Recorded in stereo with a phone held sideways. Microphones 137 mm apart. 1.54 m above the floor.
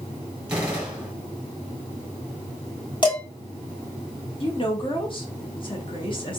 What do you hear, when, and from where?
0.5 s a gunshot: 10° right (ahead or behind), 1.5 m
3.0 s dishes clattering: 35° left (ahead or behind), 1.6 m
4.4 s a woman speaking: 40° left (ahead or behind), 1.3 m